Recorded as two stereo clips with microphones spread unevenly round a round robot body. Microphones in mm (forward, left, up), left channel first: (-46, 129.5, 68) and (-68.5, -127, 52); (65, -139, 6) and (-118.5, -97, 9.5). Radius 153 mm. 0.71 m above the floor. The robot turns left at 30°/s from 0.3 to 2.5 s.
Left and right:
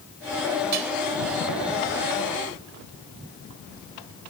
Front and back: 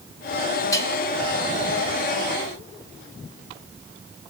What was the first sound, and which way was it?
Dishes clattering, 85° right.